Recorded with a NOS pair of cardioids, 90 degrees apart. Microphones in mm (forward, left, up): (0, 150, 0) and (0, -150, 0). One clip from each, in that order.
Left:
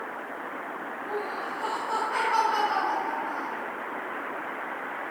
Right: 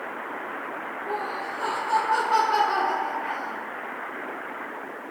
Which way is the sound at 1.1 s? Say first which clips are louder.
Right 2 dB; 30° right.